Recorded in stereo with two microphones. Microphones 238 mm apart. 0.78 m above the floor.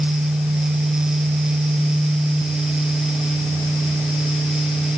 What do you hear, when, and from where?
Only background noise.